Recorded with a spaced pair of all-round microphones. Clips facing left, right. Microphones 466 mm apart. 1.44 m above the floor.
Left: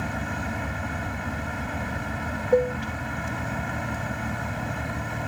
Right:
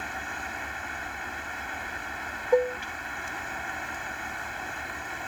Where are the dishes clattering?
5° right (ahead or behind).